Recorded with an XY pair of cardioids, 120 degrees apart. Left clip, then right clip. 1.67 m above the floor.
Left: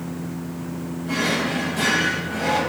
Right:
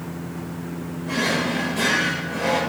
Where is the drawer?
20° right, 3.5 m.